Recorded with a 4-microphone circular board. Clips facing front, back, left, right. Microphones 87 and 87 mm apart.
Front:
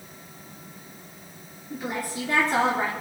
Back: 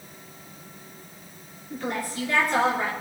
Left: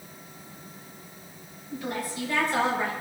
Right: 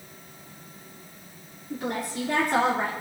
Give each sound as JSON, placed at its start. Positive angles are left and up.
{"t": 1.7, "sound": "a woman speaking", "azimuth_deg": -80, "distance_m": 2.5}